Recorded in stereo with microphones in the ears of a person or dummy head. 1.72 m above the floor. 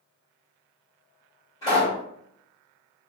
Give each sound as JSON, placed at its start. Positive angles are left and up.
{"t": 1.6, "sound": "a pop", "side_deg": 25, "distance_m": 1.9}